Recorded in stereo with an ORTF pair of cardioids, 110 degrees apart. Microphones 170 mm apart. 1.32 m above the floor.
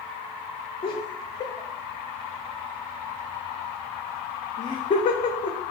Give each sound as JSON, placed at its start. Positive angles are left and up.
{"t": 0.8, "sound": "laughter", "azimuth_deg": 35, "distance_m": 0.9}